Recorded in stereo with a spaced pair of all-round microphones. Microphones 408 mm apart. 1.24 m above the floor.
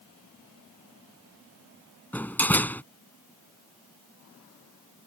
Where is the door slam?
5° left (ahead or behind).